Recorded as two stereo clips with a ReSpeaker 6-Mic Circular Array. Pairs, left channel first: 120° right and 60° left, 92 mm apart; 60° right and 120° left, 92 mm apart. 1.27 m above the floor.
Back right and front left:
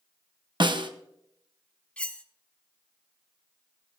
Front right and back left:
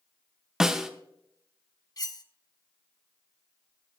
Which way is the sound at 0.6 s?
35° left.